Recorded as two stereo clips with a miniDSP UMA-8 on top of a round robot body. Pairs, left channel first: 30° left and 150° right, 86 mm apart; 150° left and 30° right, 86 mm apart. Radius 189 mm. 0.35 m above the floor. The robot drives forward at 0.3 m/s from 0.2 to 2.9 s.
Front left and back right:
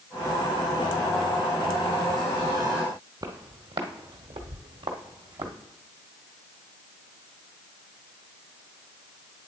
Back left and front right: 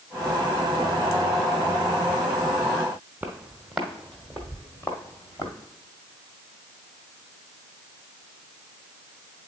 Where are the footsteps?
105° right, 1.1 m; by 5.5 s 160° right, 1.4 m.